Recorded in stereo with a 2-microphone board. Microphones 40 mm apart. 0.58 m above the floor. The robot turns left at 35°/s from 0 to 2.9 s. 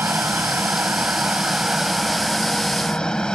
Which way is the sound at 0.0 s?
100° right.